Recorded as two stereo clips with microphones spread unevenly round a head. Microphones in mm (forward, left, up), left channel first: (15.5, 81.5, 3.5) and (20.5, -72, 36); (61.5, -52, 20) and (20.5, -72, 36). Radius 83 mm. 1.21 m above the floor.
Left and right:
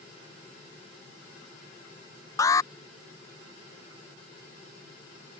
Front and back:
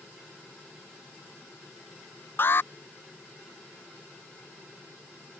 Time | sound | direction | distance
2.4 | an alarm | 30° left | ?